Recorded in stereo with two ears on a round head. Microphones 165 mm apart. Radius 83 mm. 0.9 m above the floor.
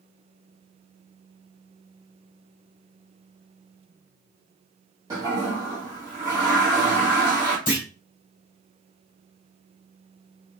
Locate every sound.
5.1 s a toilet flushing: 20° right (ahead or behind), 1.1 m
7.7 s a clunk: 45° left (ahead or behind), 1.9 m